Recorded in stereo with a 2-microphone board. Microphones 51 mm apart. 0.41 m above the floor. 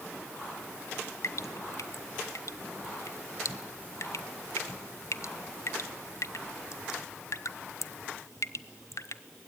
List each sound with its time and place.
1.2 s dripping: 70° left (ahead or behind), 0.8 m